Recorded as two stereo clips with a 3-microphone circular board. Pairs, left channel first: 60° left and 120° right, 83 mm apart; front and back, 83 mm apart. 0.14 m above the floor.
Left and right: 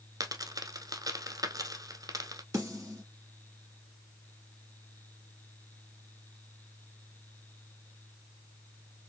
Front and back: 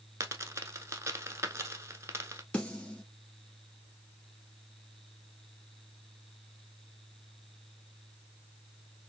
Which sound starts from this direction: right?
A snare drum, at 2.5 s.